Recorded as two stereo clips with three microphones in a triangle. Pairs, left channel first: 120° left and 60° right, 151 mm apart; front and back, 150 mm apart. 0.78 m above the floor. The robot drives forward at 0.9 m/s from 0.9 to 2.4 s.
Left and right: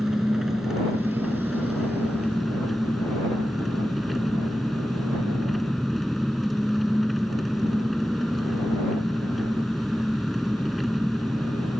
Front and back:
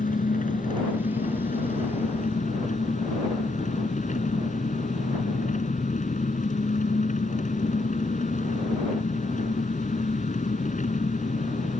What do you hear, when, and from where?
0.0 s an engine running: 25° left; by 11.8 s 30° left